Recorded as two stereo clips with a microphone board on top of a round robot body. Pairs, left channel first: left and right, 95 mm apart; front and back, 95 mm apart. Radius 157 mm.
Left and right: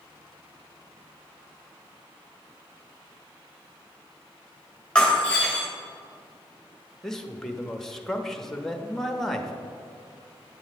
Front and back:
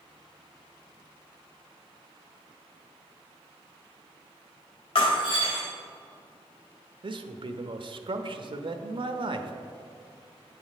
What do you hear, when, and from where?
5.0 s breaking glass: 10° left, 2.5 m
7.0 s a man speaking: 175° left, 1.0 m